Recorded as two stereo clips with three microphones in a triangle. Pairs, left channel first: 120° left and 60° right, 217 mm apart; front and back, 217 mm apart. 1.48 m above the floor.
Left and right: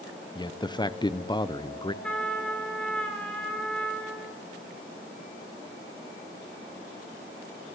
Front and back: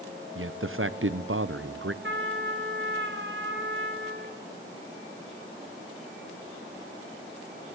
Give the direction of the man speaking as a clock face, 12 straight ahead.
6 o'clock.